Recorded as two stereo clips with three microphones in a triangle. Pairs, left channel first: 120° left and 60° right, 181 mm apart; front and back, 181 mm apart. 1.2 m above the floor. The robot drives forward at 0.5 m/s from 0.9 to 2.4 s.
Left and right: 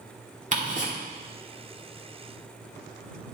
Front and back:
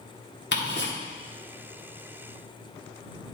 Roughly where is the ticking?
Ahead.